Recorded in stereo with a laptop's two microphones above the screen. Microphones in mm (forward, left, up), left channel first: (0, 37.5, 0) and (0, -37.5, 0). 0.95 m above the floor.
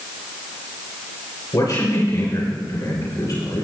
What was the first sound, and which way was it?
A man speaking, 60° left (ahead or behind).